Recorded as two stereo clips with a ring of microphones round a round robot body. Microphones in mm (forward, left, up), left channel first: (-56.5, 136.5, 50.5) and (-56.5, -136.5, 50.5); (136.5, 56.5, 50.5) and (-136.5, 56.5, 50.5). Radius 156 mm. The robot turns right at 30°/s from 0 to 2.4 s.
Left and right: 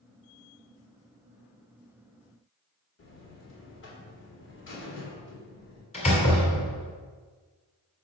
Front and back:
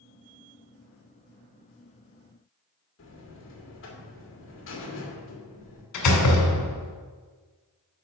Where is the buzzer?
40° left, 2.0 m.